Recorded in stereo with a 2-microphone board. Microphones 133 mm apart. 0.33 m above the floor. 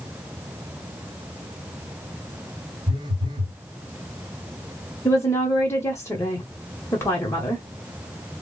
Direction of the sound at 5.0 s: 20° left (ahead or behind).